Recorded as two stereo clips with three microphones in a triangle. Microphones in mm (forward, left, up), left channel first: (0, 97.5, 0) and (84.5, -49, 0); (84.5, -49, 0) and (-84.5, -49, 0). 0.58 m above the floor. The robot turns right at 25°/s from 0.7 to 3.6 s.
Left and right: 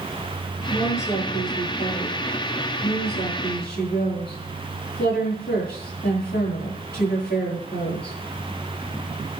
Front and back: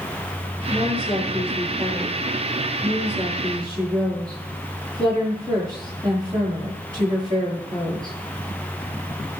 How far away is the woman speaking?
About 9.5 m.